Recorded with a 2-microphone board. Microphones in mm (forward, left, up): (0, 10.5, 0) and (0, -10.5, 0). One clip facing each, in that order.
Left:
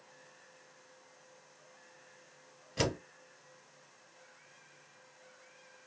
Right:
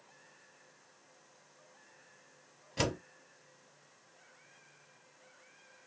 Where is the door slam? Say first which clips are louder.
Left 1 dB; centre (ahead or behind), 2.5 m.